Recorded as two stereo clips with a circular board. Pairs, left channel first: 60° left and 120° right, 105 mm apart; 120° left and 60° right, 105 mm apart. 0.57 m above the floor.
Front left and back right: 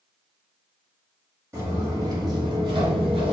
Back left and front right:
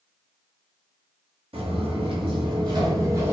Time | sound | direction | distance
1.5 | footsteps | 60° right | 1.3 m